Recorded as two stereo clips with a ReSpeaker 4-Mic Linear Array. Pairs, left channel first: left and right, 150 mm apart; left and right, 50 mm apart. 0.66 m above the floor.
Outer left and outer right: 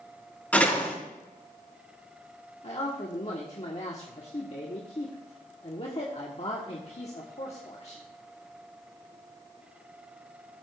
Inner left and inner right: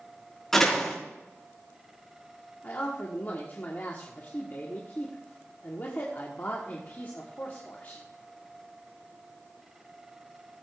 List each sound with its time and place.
0.5 s a door slam: 10° left (ahead or behind), 4.5 m
2.6 s a man speaking: 45° left (ahead or behind), 1.4 m